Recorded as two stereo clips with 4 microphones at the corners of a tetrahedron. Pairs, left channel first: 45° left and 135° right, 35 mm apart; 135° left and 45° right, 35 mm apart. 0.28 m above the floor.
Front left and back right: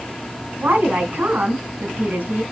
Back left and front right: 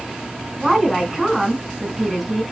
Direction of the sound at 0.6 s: 140° right.